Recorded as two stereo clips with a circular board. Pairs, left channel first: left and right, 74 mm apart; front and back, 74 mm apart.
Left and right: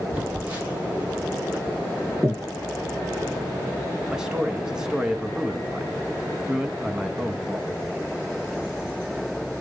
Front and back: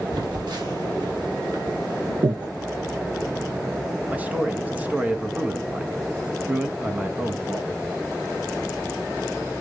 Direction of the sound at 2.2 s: Straight behind.